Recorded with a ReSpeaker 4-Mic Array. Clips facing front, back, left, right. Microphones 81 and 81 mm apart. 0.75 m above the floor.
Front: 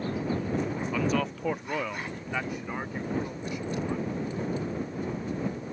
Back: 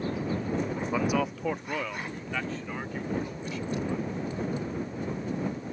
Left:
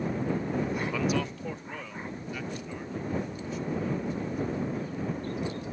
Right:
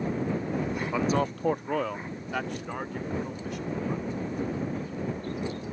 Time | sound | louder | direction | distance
0.9 | a man speaking | back 1 dB, right 3 dB | 135° right | ?